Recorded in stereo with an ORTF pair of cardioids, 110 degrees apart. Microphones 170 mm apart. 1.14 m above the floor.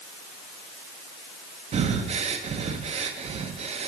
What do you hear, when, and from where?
1.7 s breathing: 40° right, 0.9 m